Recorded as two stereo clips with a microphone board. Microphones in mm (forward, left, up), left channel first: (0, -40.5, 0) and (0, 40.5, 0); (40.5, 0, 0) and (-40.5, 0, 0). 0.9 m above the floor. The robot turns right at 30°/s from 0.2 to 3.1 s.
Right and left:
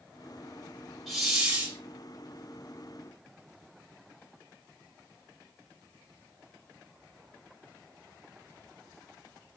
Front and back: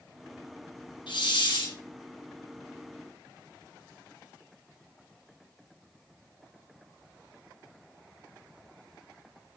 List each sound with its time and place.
1.1 s a hiss: straight ahead, 2.5 m; by 1.8 s 20° left, 2.5 m